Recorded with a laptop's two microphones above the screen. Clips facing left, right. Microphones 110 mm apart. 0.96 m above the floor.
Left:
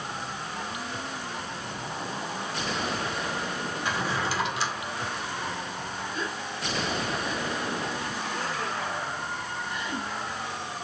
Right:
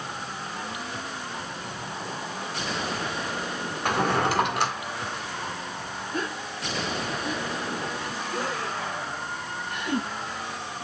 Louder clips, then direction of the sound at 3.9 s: Right 7 dB; 60° right (ahead or behind).